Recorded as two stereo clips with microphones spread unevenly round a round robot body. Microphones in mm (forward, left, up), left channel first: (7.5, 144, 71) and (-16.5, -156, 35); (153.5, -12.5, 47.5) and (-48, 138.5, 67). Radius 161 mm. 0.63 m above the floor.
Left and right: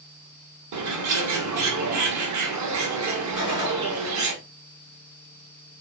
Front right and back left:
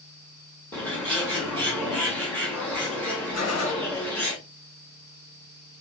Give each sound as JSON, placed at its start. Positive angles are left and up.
{"t": 0.7, "sound": "a bird", "azimuth_deg": -120, "distance_m": 1.9}
{"t": 3.3, "sound": "a gunshot", "azimuth_deg": -15, "distance_m": 3.5}